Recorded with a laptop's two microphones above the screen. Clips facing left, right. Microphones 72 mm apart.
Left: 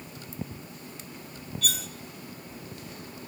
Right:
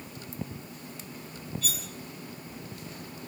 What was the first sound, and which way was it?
Cutlery clinking, 75° left (ahead or behind).